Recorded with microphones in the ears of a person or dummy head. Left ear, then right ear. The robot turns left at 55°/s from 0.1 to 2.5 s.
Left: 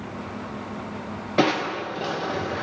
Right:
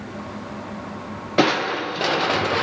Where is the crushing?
10° right, 0.7 m; by 2.6 s 70° right, 0.7 m.